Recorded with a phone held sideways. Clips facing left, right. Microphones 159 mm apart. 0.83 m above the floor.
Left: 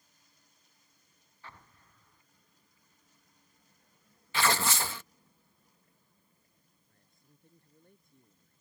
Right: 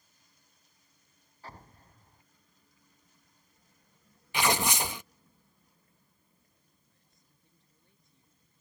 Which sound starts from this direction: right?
An explosion, at 1.4 s.